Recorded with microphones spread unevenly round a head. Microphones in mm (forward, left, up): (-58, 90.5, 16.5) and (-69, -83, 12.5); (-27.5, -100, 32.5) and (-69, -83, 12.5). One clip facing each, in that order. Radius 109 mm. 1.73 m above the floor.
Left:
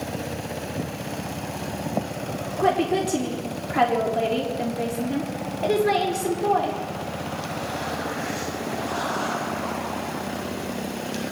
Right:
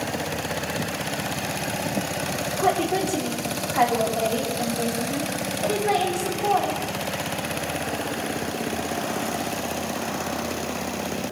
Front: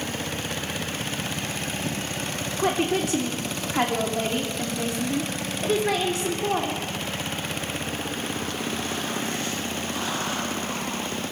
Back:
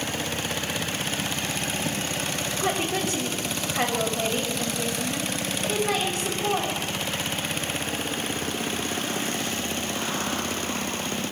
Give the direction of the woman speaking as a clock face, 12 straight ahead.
11 o'clock.